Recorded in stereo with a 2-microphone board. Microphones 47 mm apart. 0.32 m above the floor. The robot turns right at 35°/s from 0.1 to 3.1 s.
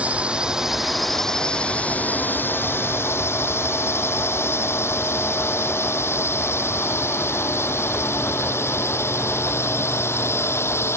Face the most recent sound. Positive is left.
turn(degrees=85)